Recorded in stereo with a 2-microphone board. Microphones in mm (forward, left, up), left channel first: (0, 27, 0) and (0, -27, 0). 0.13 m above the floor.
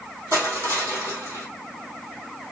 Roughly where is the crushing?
Right.